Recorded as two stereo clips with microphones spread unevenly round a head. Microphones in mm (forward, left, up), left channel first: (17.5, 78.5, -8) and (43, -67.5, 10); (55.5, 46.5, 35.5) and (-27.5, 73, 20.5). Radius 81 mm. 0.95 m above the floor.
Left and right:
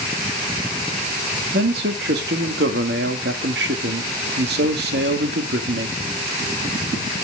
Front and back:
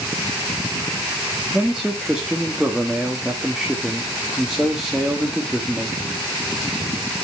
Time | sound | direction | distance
1.5 | a man speaking | 115° right | 1.7 m